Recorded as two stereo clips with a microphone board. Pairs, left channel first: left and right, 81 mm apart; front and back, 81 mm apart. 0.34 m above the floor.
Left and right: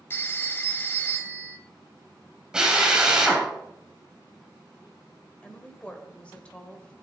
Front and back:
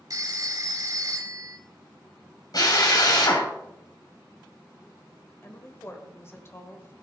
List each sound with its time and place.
0.1 s a phone ringing: 145° left, 1.1 m
2.5 s a drill: 15° right, 2.5 m
5.4 s a woman speaking: 25° left, 1.5 m